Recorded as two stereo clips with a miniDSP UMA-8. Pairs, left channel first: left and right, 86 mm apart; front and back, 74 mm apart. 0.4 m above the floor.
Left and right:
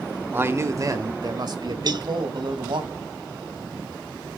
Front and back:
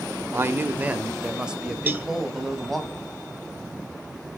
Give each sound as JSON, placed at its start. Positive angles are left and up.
{"t": 0.3, "sound": "a man speaking", "azimuth_deg": -140, "distance_m": 1.0}
{"t": 1.9, "sound": "a cowbell", "azimuth_deg": -115, "distance_m": 0.9}